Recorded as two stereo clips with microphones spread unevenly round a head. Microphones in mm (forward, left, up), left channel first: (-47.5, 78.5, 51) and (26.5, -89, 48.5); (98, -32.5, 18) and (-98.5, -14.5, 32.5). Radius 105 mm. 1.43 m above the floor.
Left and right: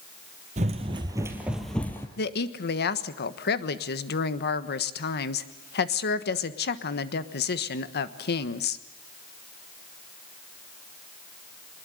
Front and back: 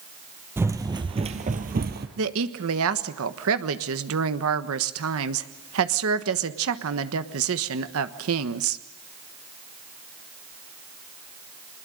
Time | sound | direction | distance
0.6 | running footsteps | 110° right | 2.5 m
2.2 | a woman speaking | 150° left | 1.3 m